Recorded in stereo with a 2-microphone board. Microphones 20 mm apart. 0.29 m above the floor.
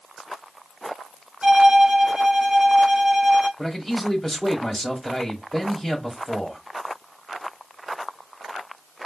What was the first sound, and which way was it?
A violin, 40° right (ahead or behind).